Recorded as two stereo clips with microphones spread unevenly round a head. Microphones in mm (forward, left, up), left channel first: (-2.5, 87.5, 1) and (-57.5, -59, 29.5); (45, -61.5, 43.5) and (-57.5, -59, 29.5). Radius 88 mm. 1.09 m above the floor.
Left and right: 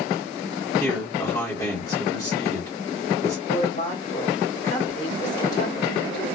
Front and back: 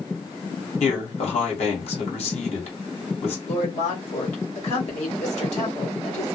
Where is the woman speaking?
10° left, 1.4 m.